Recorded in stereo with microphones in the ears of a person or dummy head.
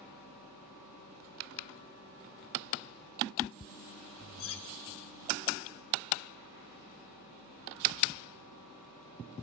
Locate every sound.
4.4 s cutlery clinking: 80° left, 2.5 m